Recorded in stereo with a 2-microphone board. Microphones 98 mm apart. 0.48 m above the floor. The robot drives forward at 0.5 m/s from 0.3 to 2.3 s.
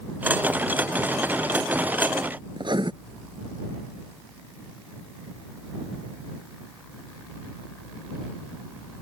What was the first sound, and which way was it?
Writing, 50° right (ahead or behind).